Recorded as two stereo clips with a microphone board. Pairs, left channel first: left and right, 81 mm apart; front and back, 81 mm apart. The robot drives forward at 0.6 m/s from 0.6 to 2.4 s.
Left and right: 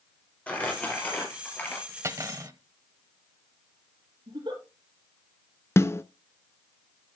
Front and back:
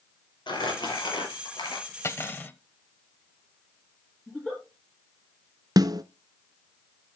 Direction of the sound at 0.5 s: 15° left.